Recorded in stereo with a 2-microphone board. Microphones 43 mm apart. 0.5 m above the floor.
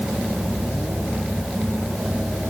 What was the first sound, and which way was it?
Only background noise.